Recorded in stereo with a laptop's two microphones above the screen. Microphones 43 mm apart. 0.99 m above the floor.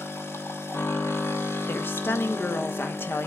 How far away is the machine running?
About 0.9 m.